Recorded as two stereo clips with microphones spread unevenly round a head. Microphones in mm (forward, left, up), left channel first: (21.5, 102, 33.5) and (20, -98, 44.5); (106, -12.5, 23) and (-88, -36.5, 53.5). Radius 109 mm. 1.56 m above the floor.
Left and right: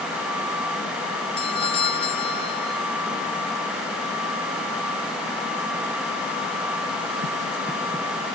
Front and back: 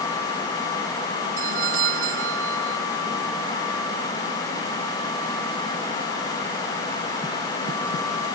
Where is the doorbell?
155° left.